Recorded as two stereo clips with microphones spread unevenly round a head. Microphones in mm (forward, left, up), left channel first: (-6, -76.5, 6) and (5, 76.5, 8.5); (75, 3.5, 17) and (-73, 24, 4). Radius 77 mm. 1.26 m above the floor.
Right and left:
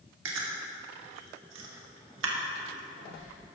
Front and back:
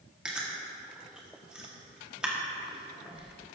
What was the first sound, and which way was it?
Chewing, 85° left.